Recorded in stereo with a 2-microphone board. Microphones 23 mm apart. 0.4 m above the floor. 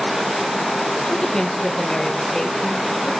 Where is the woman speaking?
30° left (ahead or behind), 1.4 m.